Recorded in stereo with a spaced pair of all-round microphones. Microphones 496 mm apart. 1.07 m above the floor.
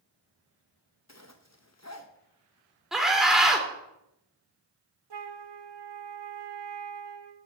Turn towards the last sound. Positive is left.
turn(degrees=-50)  # may be behind; listen again after turning